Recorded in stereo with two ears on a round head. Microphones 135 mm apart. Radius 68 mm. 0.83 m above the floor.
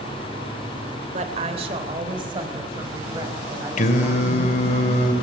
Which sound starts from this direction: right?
A woman speaking, at 1.1 s.